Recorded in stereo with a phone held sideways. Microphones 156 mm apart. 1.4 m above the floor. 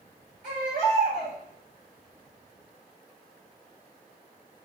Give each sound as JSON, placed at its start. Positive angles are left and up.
{"t": 0.4, "sound": "a baby crying", "side_deg": -50, "distance_m": 2.5}